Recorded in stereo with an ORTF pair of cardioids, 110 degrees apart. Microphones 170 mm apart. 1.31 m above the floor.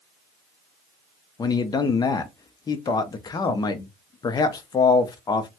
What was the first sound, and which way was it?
A man speaking, 25° left.